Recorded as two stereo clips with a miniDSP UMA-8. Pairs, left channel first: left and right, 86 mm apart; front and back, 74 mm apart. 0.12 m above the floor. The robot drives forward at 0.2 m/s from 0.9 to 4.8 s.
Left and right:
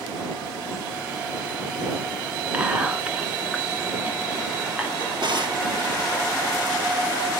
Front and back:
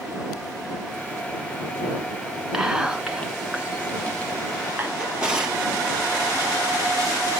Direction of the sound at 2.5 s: 115° right.